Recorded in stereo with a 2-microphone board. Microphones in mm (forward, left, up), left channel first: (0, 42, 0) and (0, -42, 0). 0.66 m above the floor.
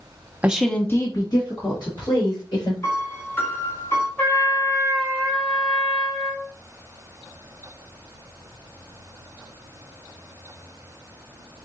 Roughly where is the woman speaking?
Centre.